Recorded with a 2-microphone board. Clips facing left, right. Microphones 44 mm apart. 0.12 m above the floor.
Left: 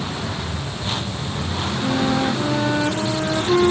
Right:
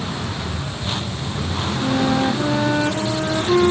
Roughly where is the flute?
Centre.